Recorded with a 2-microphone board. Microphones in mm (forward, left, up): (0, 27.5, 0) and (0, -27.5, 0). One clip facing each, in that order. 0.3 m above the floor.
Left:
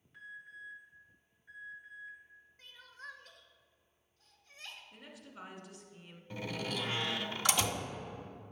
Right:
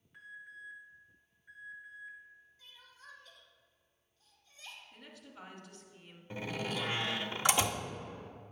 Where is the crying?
55° left (ahead or behind), 1.1 m.